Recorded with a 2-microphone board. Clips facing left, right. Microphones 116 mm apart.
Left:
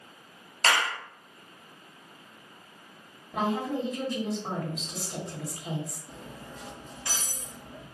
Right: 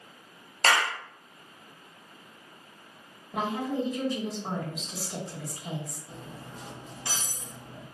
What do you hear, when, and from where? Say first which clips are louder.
0.6 s a clap: right 1 dB; 35° right (ahead or behind), 0.9 m
3.3 s a woman speaking: left 1 dB; 5° right (ahead or behind), 1.3 m
6.1 s cutlery clinking: even; 30° right (ahead or behind), 1.7 m